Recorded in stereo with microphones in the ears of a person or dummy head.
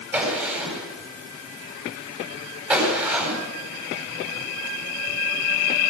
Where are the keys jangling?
I don't hear keys jangling.